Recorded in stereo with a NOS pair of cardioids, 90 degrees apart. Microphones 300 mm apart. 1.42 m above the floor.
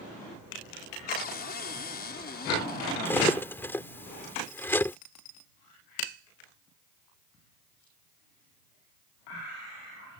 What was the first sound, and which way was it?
A cupboard door, 35° left.